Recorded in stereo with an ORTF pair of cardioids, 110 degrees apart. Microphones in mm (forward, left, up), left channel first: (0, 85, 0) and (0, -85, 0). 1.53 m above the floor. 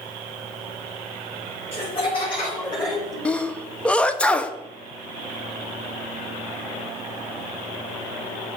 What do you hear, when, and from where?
1.7 s laughter: 40° left, 3.5 m; by 3.1 s 20° left, 4 m
3.2 s a sneeze: 5° left, 0.8 m